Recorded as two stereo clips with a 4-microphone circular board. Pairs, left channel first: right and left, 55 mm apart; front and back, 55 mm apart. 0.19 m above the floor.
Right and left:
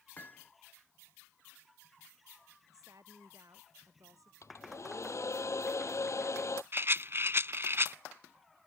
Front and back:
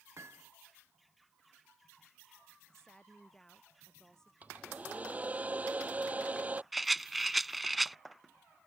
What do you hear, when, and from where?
0.2 s hammering: 145° right
2.7 s a woman speaking: 80° left
4.4 s a hair dryer: 115° right
6.7 s a rattle: 95° left